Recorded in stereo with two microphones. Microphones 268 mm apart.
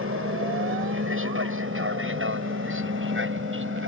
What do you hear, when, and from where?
0.0 s an aircraft: 50° right (ahead or behind); by 3.9 s 45° right (ahead or behind)